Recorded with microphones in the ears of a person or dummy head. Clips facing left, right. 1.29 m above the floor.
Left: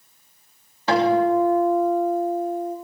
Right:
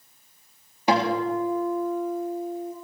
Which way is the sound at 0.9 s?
15° right (ahead or behind).